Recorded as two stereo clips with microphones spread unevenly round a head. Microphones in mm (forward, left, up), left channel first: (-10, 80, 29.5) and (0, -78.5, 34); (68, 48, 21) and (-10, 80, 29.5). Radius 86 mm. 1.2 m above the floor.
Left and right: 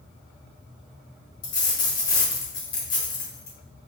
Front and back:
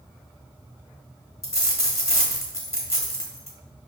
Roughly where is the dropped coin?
Ahead left.